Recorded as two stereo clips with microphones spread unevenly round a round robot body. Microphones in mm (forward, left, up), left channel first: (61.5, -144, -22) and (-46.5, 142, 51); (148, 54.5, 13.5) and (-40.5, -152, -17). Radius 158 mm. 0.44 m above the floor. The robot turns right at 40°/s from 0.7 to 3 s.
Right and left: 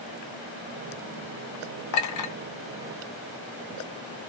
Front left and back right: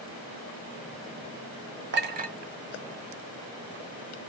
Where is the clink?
90° right, 0.9 m; by 2.3 s 70° right, 0.9 m.